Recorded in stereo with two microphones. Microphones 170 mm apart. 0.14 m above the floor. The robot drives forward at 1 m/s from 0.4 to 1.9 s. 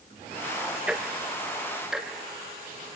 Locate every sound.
0.9 s ticking: 5° right (ahead or behind), 1.3 m